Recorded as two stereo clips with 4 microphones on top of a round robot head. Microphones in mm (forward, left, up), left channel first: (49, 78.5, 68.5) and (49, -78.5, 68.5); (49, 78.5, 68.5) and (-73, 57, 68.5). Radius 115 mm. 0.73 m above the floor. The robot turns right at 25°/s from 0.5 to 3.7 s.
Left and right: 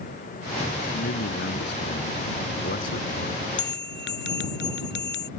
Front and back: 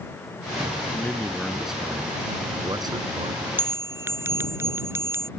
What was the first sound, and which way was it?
A man speaking, 85° left.